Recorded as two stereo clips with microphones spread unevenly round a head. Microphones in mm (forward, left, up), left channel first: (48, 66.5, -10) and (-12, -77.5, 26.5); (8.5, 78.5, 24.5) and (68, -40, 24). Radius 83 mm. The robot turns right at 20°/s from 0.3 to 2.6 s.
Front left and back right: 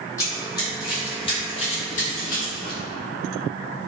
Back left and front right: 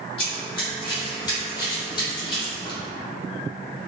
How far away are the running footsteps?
About 1.2 m.